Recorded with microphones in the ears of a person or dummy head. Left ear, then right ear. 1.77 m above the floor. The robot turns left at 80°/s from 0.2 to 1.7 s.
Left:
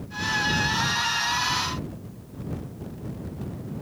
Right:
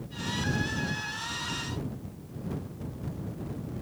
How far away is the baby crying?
No baby crying in this recording.